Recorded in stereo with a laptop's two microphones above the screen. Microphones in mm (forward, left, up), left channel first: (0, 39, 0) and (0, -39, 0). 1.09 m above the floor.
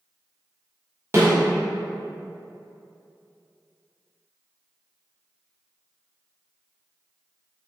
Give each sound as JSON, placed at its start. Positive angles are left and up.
{"t": 1.1, "sound": "a snare drum", "side_deg": -35, "distance_m": 0.8}